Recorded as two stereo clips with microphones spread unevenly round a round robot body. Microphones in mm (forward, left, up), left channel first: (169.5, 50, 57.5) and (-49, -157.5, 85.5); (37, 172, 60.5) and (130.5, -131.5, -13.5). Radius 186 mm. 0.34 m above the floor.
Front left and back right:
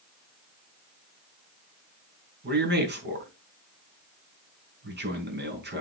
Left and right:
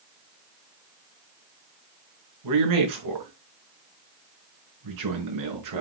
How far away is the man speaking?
About 4.5 m.